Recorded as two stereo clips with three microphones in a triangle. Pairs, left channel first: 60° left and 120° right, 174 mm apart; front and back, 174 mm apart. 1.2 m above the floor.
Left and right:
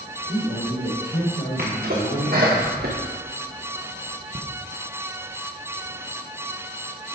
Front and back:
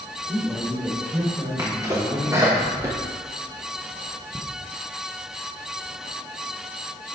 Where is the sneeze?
110° right, 1.1 m.